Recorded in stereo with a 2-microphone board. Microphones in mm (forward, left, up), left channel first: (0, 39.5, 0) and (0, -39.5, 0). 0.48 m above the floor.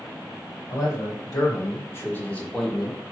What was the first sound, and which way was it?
A man speaking, 50° left (ahead or behind).